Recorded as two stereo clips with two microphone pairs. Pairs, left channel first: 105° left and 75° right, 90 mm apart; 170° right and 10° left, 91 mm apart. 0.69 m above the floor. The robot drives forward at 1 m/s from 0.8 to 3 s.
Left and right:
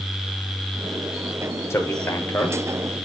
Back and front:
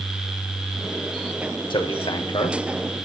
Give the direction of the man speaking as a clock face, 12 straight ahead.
7 o'clock.